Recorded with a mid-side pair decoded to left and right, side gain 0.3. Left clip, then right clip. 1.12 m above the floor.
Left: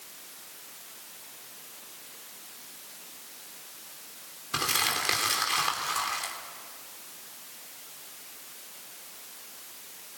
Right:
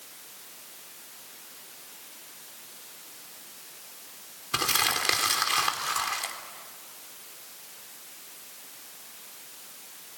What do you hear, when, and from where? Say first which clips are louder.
4.5 s crumpling: right 2 dB; 40° right, 3.5 m